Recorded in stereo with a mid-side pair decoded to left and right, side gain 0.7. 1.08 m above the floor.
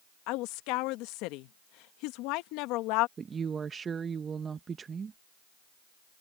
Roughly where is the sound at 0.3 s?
Left.